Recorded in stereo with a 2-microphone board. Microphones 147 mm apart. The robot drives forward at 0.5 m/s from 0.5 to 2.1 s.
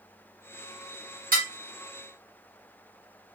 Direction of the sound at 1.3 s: 75° right (ahead or behind).